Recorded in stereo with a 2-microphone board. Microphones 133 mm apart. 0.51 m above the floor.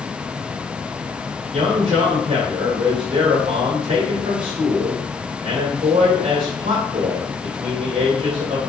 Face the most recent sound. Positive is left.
turn(degrees=-55)  # may be behind; listen again after turning